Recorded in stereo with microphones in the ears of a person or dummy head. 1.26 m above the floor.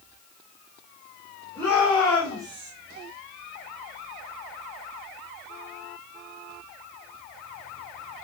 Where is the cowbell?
I don't hear a cowbell.